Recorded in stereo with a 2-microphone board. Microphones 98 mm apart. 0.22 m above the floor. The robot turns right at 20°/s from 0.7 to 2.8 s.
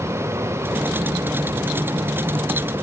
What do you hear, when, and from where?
Only background noise.